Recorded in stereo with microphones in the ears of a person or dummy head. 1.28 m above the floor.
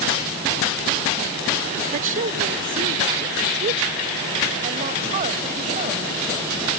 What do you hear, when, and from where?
1.9 s a woman speaking: 50° right (ahead or behind); by 6.1 s 45° right (ahead or behind)